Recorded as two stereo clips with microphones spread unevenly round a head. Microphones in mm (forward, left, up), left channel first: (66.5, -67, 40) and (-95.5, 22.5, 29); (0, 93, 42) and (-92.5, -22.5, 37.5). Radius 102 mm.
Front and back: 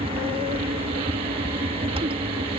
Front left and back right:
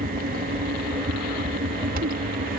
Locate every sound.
0.0 s a fan: 150° right